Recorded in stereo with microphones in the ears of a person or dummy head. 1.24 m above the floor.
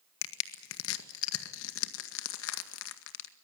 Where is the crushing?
70° left (ahead or behind), 1.8 m.